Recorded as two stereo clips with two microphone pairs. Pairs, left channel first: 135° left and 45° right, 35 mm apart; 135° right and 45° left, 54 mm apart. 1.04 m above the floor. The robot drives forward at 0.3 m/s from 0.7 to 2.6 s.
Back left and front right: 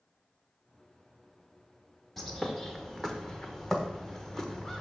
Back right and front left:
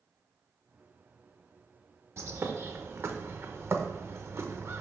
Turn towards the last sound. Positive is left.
turn(degrees=60)